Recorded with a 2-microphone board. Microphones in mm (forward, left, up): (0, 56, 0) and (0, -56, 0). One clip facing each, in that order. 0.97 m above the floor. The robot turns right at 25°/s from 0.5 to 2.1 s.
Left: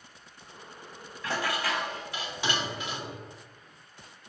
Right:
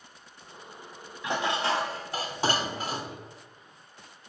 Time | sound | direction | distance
1.2 | dishes clattering | 15° right (ahead or behind) | 0.6 m